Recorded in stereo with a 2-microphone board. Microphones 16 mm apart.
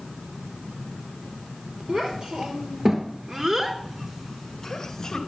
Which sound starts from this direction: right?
A child speaking, at 1.9 s.